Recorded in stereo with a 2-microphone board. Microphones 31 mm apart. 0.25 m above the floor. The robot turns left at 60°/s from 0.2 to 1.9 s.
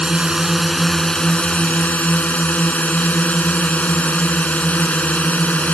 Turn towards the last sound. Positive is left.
turn(degrees=110)